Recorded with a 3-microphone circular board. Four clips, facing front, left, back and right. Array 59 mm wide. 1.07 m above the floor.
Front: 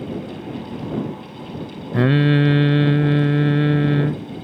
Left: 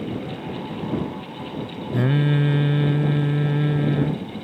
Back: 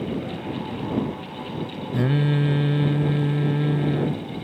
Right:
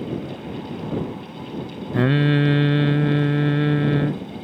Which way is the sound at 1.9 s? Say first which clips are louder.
Right 3 dB, front 6 dB; 35° right.